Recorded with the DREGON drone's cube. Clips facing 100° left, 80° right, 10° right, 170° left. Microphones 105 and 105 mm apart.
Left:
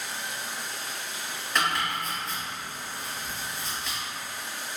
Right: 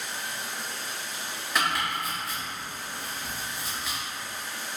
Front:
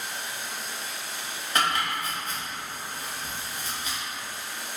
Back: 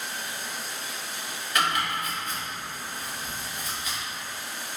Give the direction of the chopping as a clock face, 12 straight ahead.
12 o'clock.